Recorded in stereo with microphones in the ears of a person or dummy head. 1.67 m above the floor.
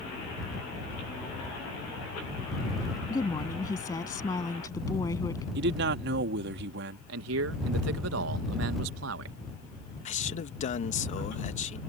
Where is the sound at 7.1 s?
75° right (ahead or behind).